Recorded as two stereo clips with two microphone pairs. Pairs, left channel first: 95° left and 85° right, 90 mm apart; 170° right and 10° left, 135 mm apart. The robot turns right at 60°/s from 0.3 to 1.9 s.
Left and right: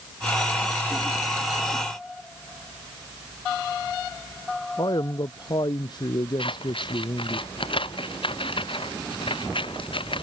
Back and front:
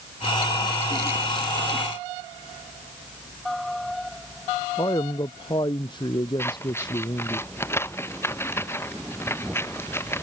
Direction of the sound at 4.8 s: 135° left.